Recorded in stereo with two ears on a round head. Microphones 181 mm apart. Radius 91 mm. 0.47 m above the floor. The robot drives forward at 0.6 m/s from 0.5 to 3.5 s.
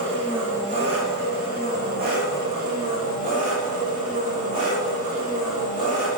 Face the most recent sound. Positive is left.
turn(degrees=-45)  # may be behind; listen again after turning